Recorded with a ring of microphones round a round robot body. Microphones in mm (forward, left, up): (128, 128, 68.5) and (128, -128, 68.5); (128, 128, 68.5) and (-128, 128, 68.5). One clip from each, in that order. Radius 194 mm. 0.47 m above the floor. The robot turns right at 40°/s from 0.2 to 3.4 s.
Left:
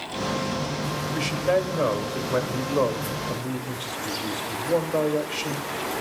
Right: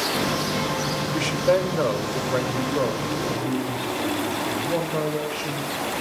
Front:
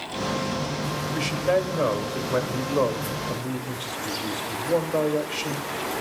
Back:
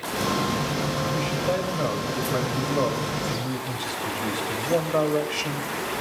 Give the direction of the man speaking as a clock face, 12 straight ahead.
1 o'clock.